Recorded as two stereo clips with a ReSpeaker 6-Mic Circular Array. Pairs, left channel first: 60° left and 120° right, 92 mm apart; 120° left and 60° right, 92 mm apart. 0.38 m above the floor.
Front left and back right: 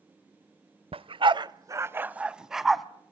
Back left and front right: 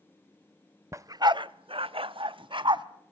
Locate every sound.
0.9 s a dog barking: 115° right, 0.6 m; by 2.9 s 30° right, 1.1 m